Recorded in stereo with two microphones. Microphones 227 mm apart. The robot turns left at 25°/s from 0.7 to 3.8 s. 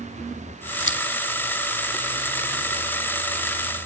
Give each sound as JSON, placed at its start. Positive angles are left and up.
{"t": 0.8, "sound": "scissors", "side_deg": 60, "distance_m": 2.5}